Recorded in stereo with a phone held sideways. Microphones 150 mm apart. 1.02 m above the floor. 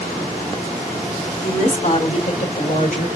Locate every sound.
1.4 s a woman speaking: 55° left (ahead or behind), 3 m; by 3.1 s 65° left (ahead or behind), 2 m